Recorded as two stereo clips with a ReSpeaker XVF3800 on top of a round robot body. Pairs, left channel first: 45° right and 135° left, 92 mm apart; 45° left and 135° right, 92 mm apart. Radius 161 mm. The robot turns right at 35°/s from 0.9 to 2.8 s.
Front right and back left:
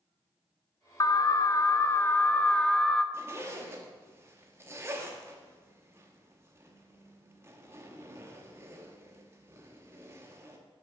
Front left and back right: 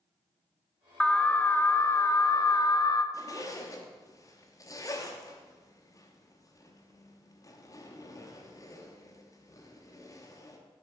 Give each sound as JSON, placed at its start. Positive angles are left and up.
{"t": 1.0, "sound": "an alarm", "azimuth_deg": -30, "distance_m": 0.5}
{"t": 3.1, "sound": "a zipper", "azimuth_deg": 80, "distance_m": 1.0}